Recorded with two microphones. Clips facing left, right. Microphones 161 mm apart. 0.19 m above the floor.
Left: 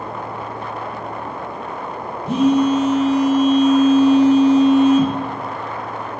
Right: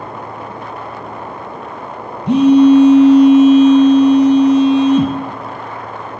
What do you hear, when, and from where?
2.3 s a phone buzzing: 70° right (ahead or behind), 1.0 m